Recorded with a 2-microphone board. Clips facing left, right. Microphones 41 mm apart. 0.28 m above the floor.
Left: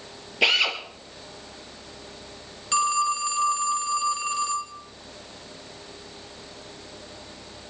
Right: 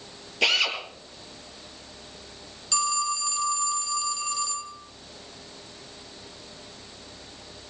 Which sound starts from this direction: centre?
A drill, at 0.4 s.